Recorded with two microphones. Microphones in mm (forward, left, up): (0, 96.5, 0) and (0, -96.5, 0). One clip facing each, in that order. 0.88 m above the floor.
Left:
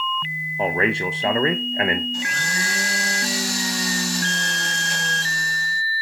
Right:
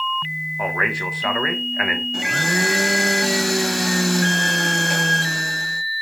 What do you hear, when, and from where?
0.6 s a man speaking: 25° left (ahead or behind), 0.5 m
2.1 s a blender: 65° right (ahead or behind), 0.5 m